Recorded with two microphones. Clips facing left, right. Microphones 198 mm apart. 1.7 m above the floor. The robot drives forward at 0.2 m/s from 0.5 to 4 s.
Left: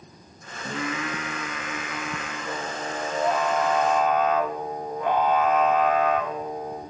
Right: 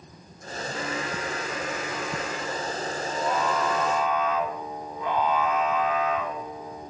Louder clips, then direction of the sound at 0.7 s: Left 2 dB; 85° left.